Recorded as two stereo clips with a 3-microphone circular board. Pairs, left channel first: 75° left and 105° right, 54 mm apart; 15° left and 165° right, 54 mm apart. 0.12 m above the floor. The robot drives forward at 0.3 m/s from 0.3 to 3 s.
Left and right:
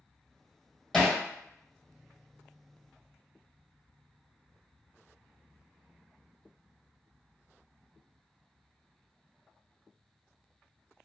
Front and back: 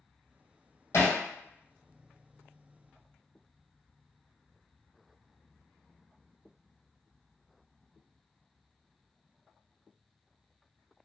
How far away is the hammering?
About 1.3 m.